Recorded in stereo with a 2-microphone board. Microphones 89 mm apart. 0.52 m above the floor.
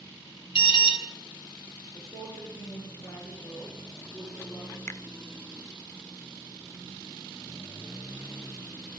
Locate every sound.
0.6 s an alarm: 70° left (ahead or behind), 3.5 m
1.9 s a woman speaking: 45° left (ahead or behind), 8.5 m
4.9 s a finger snap: 30° left (ahead or behind), 0.8 m